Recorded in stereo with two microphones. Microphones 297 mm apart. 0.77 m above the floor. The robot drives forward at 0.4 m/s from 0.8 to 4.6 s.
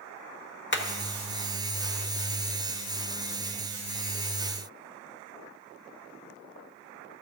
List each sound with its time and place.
0.7 s hammering: 40° left (ahead or behind), 1.0 m